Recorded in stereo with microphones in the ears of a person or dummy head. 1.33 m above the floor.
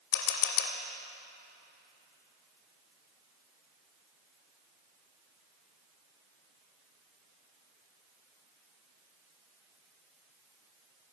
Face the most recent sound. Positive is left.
turn(degrees=70)  # may be behind; listen again after turning